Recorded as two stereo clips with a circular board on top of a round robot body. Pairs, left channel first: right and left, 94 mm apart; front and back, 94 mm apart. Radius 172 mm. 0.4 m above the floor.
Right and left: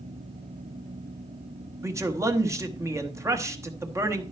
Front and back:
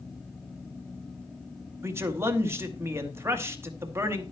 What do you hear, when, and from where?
1.8 s a man speaking: 130° left, 1.6 m